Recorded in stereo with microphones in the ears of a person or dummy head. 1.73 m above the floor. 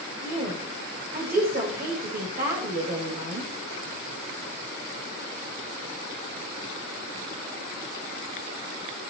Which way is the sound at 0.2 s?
45° right (ahead or behind).